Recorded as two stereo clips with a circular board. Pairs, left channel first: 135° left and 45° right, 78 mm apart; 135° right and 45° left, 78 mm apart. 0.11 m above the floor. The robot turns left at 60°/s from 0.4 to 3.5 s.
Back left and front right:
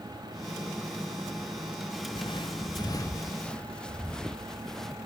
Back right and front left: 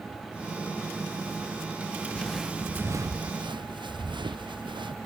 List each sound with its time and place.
2.1 s footsteps: 150° left; by 5.0 s 50° left